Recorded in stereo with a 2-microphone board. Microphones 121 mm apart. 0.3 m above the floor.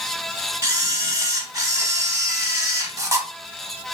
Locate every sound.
0.6 s a camera shutter: 30° right (ahead or behind), 0.6 m